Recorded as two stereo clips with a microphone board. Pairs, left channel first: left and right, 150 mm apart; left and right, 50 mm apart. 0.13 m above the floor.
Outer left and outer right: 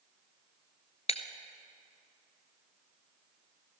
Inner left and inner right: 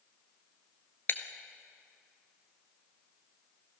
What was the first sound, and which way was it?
Breaking glass, 45° left (ahead or behind).